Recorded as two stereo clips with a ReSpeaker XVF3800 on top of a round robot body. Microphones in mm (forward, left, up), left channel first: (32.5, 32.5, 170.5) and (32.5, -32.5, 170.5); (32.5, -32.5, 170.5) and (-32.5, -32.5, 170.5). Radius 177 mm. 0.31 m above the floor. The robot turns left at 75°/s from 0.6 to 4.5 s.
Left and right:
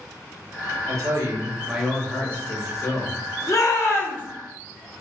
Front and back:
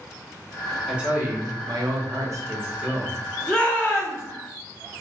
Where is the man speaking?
95° right, 1.5 m; by 3.2 s 90° left, 1.5 m.